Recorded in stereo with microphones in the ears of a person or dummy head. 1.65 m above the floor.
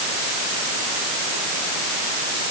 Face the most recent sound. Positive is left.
No sound to turn to.